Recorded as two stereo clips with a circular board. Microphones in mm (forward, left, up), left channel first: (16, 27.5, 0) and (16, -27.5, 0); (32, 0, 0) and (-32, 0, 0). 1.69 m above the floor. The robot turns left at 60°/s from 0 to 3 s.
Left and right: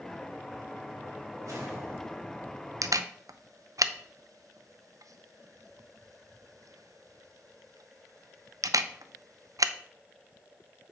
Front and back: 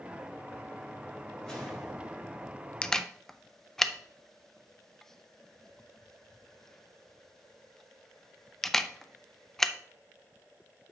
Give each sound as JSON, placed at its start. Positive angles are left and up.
{"t": 1.4, "sound": "a whoosh", "azimuth_deg": -80, "distance_m": 4.0}
{"t": 2.8, "sound": "a camera shutter", "azimuth_deg": -75, "distance_m": 0.6}